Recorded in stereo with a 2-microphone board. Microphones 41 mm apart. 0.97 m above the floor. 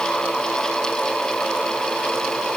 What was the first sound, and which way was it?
Only background noise.